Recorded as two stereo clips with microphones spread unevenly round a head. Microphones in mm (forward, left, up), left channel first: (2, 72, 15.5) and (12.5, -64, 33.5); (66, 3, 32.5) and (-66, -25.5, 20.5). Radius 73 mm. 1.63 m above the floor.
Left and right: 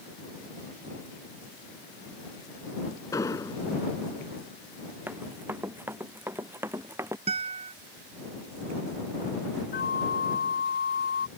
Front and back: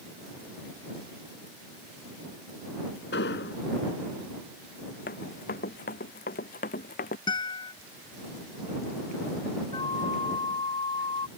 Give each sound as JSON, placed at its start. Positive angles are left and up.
{"t": 3.1, "sound": "an explosion", "azimuth_deg": 25}
{"t": 5.1, "sound": "running footsteps", "azimuth_deg": -10}
{"t": 7.3, "sound": "a guitar", "azimuth_deg": -45}
{"t": 9.7, "sound": "a flute", "azimuth_deg": 75}